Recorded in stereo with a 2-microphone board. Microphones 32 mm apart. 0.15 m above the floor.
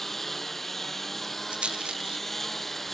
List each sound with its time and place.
0.0 s a lawn mower: 5° left (ahead or behind)
1.5 s a rattle: 35° right (ahead or behind)